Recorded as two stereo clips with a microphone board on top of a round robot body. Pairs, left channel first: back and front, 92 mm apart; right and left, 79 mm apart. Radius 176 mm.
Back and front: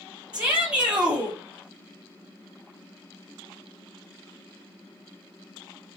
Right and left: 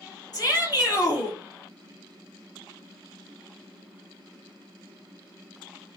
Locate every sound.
0.3 s a shout: 75° right, 2 m